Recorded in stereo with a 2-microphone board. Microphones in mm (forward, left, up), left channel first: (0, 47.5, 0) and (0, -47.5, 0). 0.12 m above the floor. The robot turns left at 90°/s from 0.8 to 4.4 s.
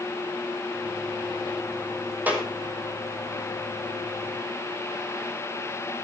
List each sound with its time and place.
2.3 s a clap: 20° right (ahead or behind), 4 m; by 2.5 s centre (ahead or behind), 4 m